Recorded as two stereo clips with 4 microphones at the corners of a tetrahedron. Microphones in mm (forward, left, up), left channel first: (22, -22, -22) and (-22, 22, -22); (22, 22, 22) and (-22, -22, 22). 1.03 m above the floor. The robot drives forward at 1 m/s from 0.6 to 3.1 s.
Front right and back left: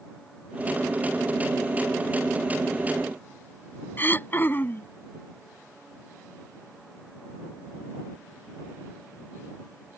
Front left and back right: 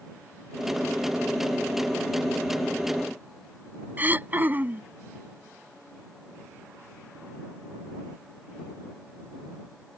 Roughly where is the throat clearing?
Right.